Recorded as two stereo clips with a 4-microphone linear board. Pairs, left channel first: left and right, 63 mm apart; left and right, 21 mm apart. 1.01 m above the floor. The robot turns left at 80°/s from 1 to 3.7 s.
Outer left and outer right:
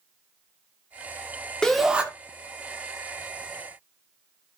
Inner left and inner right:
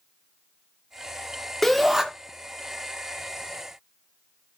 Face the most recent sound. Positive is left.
turn(degrees=-155)